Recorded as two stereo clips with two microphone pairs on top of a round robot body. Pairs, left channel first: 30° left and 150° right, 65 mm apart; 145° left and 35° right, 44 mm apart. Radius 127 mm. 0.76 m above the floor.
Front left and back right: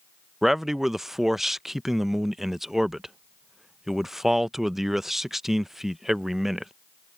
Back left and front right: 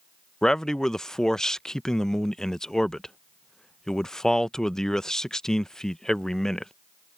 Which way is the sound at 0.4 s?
160° left.